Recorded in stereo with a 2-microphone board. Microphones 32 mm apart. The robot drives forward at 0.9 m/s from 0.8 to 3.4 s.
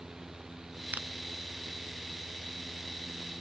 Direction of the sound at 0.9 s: 70° right (ahead or behind).